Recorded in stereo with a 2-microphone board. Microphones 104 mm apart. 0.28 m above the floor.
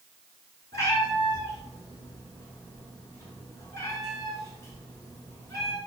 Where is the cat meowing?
30° left (ahead or behind), 1.4 m.